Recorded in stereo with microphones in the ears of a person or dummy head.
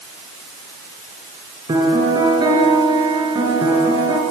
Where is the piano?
25° right (ahead or behind), 3.5 m.